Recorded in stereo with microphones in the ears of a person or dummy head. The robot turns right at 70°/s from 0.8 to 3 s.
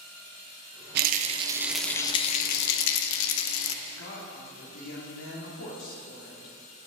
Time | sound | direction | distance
0.9 | a rattle | 55° right | 0.9 m
3.8 | a woman speaking | 55° left (ahead or behind) | 2.5 m